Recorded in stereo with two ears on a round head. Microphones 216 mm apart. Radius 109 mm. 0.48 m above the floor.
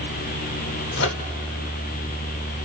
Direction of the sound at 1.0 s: 55° left (ahead or behind).